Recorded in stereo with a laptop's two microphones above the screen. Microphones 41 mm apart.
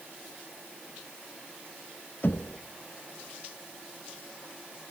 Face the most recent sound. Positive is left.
turn(degrees=50)  # may be behind; listen again after turning